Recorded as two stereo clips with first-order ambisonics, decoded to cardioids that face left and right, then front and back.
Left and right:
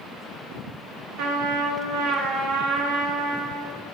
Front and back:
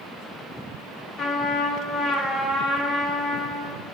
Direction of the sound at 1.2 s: 65° right.